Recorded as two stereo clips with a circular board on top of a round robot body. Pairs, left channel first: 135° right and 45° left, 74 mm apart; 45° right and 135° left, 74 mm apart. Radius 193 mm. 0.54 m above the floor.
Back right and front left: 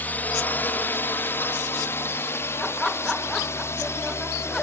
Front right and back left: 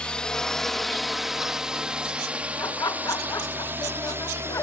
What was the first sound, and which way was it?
A drone, 105° right.